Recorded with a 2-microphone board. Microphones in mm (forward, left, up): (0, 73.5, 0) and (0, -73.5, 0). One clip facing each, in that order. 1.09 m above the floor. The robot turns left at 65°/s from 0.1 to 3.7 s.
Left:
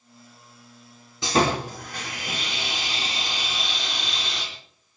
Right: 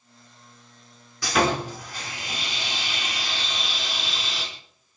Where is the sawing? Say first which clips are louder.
Left 1 dB; 155° left, 6 m; by 4.4 s 5° right, 6 m.